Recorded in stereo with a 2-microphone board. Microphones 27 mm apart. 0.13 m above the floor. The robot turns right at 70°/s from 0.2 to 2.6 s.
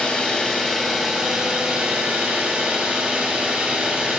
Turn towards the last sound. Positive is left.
turn(degrees=-65)